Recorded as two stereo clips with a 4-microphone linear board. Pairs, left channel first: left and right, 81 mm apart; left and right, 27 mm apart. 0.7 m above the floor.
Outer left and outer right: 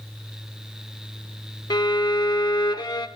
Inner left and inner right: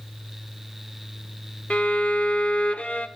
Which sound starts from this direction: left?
A violin, at 1.7 s.